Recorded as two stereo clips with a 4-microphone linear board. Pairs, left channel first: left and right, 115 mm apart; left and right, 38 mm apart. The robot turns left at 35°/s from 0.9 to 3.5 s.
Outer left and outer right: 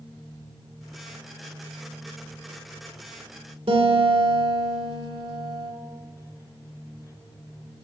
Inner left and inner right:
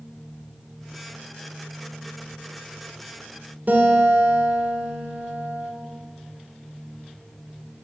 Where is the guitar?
60° right (ahead or behind), 1.8 m.